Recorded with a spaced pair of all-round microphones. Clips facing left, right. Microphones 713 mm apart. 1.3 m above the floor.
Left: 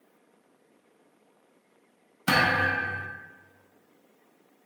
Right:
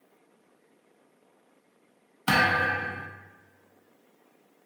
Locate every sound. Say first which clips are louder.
2.3 s a thud: even; 10° left (ahead or behind), 0.6 m